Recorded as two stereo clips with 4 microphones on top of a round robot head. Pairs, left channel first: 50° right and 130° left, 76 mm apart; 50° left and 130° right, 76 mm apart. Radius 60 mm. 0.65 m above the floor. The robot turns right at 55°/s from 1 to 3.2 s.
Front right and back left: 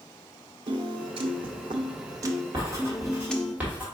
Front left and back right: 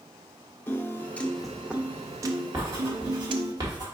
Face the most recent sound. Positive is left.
turn(degrees=-155)